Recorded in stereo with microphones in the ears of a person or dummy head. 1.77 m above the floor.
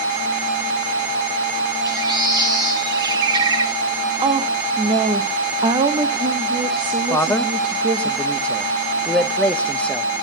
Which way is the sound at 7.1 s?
10° left (ahead or behind).